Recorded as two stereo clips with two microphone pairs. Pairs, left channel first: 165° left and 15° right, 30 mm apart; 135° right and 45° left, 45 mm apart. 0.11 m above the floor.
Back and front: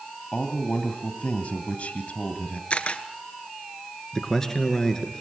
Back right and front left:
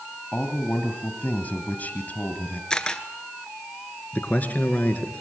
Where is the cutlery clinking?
I don't hear cutlery clinking.